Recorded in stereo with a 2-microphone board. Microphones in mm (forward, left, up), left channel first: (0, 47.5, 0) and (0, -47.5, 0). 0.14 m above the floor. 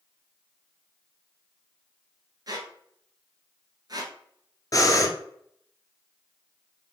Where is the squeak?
45° right (ahead or behind), 1.1 m.